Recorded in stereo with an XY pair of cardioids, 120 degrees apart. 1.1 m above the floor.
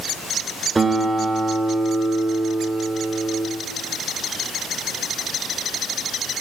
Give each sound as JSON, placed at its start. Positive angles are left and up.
{"t": 0.8, "sound": "a guitar", "azimuth_deg": -20, "distance_m": 1.9}